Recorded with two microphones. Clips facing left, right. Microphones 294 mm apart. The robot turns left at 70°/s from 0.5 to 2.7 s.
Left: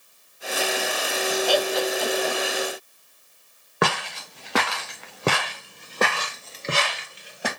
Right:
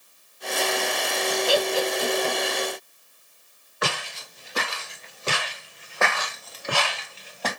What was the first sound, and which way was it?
Laughter, 25° right (ahead or behind).